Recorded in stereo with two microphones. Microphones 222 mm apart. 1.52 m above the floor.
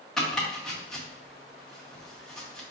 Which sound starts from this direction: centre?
Chopping, at 0.2 s.